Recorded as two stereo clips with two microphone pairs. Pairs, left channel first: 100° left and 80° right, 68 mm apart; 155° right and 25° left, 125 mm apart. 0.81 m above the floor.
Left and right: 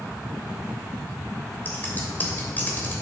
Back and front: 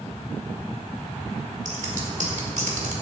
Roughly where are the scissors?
Ahead left.